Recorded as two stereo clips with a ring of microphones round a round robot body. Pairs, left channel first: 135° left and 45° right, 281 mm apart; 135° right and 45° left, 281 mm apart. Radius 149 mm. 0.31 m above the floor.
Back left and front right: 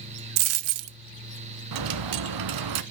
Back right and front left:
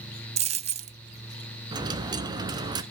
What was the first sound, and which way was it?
A dropped coin, 25° right.